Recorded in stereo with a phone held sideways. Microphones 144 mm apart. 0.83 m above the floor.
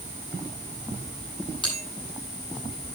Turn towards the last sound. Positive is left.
turn(degrees=35)  # may be behind; listen again after turning